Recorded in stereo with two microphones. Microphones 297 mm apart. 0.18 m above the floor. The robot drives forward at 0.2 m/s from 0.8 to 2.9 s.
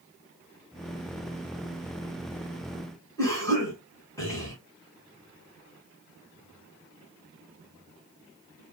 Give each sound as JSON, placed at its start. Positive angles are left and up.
{"t": 3.2, "sound": "a cough", "side_deg": 10, "distance_m": 1.2}